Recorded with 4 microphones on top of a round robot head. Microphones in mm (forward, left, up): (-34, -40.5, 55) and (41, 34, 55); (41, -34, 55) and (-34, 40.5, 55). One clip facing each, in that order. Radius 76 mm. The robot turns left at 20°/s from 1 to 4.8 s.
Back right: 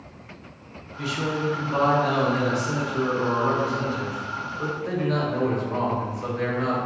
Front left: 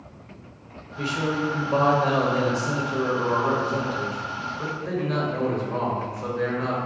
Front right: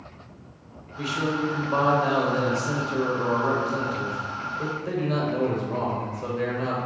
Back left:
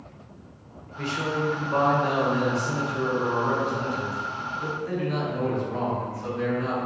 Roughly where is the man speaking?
Ahead left.